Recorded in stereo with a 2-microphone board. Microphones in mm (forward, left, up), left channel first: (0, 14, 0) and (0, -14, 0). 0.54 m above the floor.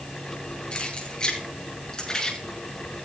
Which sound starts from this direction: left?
Keys jangling, at 0.7 s.